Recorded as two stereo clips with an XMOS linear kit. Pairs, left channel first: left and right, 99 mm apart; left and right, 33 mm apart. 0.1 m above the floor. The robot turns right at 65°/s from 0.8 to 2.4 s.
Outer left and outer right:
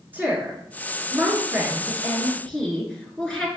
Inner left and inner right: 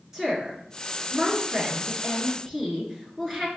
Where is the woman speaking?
20° right (ahead or behind), 1.3 m; by 3.5 s 5° left (ahead or behind), 1.3 m.